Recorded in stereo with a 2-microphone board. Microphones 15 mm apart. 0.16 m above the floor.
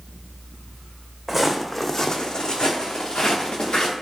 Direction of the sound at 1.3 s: 20° right (ahead or behind).